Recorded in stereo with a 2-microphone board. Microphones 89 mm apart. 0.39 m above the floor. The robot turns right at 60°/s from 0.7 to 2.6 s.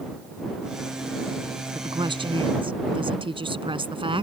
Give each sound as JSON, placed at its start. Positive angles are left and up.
{"t": 1.8, "sound": "a woman speaking", "azimuth_deg": -130}